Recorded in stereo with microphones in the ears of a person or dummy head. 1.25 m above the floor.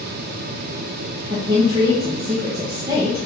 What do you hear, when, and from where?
1.3 s a woman speaking: 25° right (ahead or behind), 0.8 m